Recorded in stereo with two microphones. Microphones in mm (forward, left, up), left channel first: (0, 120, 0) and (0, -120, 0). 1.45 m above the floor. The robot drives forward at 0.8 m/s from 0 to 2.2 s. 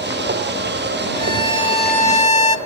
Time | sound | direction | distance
1.1 | a violin | 20° left (ahead or behind) | 2.0 m